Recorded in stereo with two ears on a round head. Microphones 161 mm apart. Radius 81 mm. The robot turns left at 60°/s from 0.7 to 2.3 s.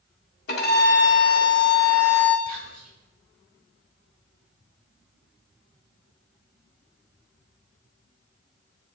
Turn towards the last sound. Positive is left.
turn(degrees=-55)  # may be behind; listen again after turning